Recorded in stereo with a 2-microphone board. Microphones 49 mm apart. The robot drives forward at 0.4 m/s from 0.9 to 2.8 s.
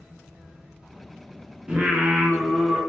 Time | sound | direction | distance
1.7 | singing | 20° right (ahead or behind) | 0.6 m